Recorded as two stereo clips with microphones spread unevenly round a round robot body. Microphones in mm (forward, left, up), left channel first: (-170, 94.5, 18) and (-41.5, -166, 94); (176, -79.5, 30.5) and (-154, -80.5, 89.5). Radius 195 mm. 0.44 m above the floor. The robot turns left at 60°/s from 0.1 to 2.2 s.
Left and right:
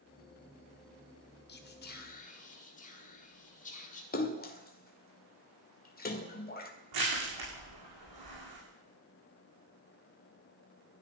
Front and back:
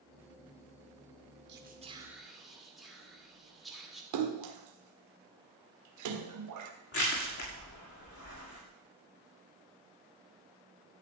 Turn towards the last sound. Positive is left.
turn(degrees=-45)